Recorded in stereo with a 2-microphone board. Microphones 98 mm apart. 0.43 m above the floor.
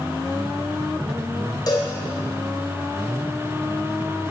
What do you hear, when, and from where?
1.7 s a cowbell: 45° left (ahead or behind), 2 m